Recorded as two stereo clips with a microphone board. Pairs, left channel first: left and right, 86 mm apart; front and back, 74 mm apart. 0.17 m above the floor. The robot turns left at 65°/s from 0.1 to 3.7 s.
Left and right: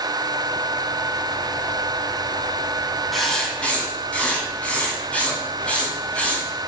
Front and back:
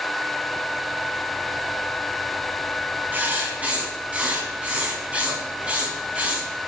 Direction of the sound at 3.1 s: Straight behind.